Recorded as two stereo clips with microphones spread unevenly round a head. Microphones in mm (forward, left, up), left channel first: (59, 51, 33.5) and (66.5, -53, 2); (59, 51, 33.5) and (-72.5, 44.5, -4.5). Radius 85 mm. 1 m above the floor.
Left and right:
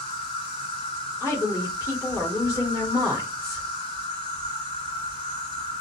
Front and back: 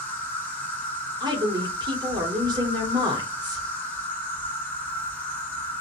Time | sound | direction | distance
0.0 | an insect | 100° left | 1.5 m
1.2 | a woman speaking | 165° left | 1.1 m